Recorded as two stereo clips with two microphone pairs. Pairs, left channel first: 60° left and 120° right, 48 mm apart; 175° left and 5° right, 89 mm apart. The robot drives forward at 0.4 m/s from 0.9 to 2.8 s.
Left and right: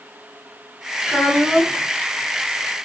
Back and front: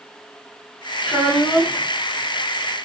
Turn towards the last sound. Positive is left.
turn(degrees=-160)